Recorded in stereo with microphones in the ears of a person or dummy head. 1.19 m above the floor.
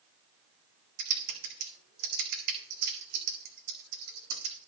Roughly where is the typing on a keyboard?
Right.